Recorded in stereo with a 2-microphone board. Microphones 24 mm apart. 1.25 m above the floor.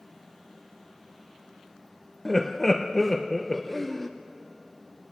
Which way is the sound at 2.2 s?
15° left (ahead or behind).